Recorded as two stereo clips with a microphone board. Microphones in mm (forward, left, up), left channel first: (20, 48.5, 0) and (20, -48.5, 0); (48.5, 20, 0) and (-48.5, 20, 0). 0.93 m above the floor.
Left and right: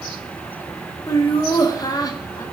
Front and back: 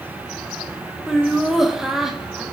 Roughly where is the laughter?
Left.